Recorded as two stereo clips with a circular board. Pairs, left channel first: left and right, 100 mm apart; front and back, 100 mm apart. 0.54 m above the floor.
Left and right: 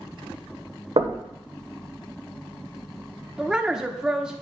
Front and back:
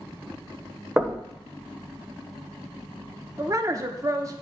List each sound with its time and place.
1.0 s knocking: 105° right, 1.1 m
3.4 s a woman speaking: 165° right, 0.8 m